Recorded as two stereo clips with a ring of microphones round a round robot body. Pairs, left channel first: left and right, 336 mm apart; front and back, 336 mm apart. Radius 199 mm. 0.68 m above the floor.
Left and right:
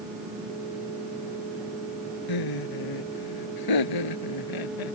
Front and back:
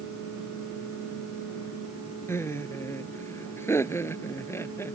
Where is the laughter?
80° left.